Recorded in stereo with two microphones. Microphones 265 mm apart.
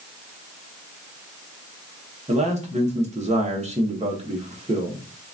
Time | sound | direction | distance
2.3 | a man speaking | 25° right (ahead or behind) | 1.1 m